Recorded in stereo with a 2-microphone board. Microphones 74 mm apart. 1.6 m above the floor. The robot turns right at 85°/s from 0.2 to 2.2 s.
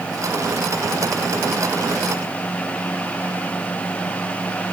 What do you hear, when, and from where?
Only background noise.